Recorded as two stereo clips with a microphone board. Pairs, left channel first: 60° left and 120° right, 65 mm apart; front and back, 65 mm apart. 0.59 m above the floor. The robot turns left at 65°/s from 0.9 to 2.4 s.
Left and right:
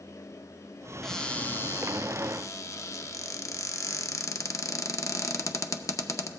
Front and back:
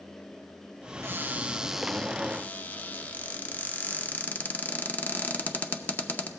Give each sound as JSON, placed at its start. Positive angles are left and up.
{"t": 1.0, "sound": "a cupboard door", "azimuth_deg": 145, "distance_m": 0.6}